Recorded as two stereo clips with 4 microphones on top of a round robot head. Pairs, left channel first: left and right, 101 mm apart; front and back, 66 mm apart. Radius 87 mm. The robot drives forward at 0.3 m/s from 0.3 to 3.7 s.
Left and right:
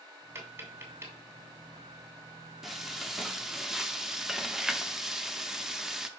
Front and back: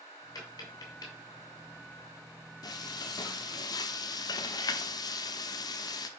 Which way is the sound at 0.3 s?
25° right.